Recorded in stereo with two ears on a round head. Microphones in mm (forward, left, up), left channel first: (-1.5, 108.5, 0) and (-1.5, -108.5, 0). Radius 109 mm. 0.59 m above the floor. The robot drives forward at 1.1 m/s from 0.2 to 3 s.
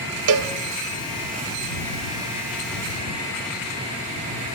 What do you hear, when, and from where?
0.3 s a cowbell: 65° right (ahead or behind), 0.6 m; by 0.5 s 60° right (ahead or behind), 0.6 m